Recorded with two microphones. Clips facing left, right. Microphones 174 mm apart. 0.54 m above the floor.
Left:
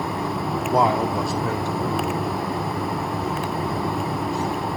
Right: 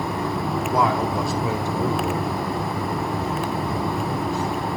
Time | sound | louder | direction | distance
0.7 | a man speaking | left 2 dB | 35° left (ahead or behind) | 0.8 m